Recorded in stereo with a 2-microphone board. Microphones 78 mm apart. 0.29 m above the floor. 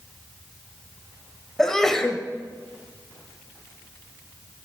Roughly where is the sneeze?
Centre.